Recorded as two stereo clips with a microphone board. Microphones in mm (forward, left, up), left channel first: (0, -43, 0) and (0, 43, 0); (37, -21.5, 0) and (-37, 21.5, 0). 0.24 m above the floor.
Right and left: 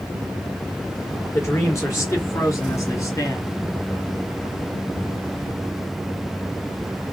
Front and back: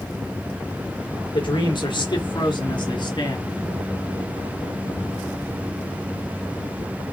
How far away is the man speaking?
About 4 m.